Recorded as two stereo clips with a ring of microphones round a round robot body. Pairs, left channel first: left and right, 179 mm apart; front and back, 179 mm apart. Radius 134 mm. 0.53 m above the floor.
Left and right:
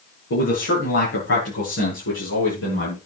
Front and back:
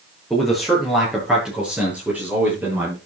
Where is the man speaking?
90° left, 8.5 m; by 3.0 s 105° left, 9 m.